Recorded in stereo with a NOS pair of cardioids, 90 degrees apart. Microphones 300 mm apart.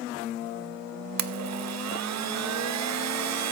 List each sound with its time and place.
1.2 s a blender: 65° right, 1.0 m